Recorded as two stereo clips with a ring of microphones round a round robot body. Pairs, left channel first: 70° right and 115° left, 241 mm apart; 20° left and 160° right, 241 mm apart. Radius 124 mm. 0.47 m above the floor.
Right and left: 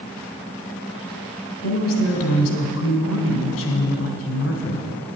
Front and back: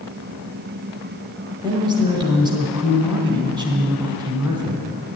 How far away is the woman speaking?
About 1.7 m.